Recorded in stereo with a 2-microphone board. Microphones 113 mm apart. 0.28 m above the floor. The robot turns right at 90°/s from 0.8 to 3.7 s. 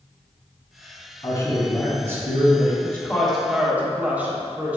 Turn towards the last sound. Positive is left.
turn(degrees=-15)  # may be behind; listen again after turning